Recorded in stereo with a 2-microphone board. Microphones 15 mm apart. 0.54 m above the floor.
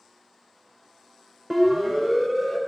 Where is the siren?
20° right (ahead or behind), 2 m.